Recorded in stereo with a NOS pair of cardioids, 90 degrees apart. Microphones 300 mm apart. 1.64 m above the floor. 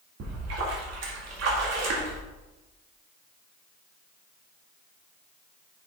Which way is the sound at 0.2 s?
60° right.